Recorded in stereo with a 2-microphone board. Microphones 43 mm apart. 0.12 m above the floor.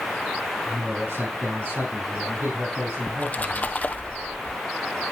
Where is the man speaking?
65° right (ahead or behind), 4.5 m.